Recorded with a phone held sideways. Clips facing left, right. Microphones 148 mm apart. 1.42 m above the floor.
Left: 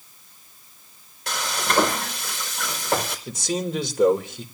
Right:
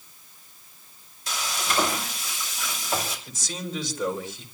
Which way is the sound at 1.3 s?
70° left (ahead or behind).